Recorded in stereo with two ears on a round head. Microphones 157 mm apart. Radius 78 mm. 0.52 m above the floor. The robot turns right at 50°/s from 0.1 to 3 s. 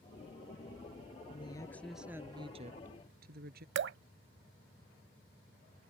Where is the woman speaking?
150° left; by 3.6 s 125° right.